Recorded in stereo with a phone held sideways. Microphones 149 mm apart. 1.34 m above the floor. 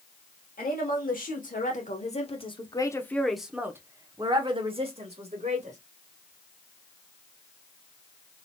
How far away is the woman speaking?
About 1.6 m.